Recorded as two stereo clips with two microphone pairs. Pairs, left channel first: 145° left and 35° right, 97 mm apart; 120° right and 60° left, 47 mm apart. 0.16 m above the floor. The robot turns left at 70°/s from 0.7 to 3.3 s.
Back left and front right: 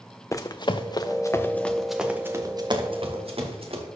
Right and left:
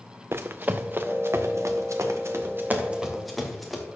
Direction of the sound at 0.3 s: 90° left.